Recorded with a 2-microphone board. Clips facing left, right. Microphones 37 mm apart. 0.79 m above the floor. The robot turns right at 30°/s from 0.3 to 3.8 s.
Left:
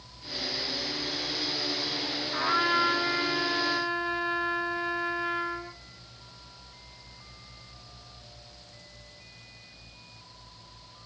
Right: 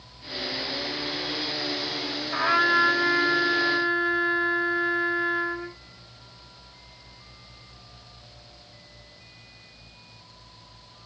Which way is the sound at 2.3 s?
130° right.